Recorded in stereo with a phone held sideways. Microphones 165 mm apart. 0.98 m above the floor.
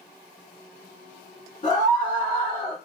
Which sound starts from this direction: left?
A scream, at 1.6 s.